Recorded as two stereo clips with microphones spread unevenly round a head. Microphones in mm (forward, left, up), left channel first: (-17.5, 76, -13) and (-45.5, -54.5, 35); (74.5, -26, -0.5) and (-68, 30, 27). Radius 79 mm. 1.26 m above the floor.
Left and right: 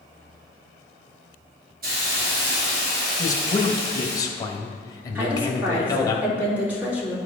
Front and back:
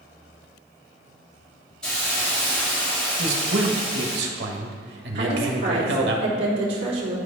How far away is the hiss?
About 2.5 m.